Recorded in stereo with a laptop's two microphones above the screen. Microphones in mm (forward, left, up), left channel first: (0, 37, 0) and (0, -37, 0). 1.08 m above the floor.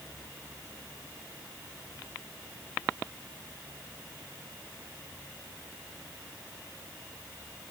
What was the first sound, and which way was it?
Only background noise.